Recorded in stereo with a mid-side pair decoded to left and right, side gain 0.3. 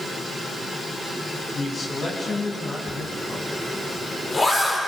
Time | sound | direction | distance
1.5 | a man speaking | 60° left | 8 m
2.9 | a zipper | 30° left | 9.5 m